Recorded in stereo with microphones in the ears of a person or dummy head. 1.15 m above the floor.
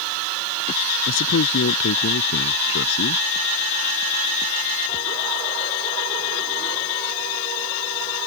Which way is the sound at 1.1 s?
75° left (ahead or behind).